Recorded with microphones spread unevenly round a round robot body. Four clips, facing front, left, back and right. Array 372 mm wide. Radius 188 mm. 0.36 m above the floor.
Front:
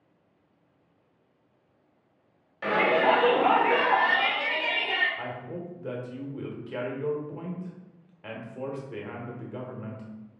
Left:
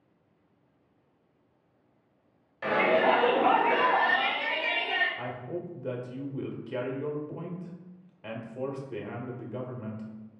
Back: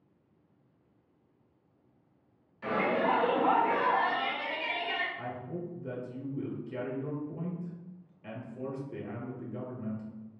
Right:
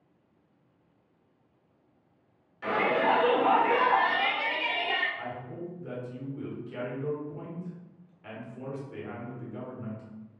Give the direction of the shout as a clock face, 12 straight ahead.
11 o'clock.